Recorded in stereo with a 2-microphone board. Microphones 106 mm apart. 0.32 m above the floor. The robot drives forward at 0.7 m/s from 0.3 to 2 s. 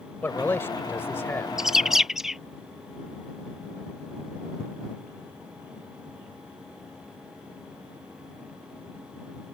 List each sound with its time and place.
0.2 s a man speaking: 20° left (ahead or behind)
1.6 s a bird: 5° right (ahead or behind)